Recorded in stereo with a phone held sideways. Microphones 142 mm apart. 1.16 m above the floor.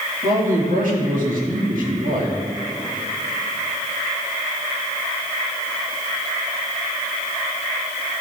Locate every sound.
0.2 s a man speaking: 70° right (ahead or behind), 2.5 m